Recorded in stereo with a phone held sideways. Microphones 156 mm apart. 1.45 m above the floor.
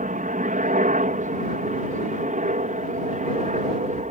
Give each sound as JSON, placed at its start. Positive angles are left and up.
{"t": 0.0, "sound": "a helicopter", "side_deg": -55}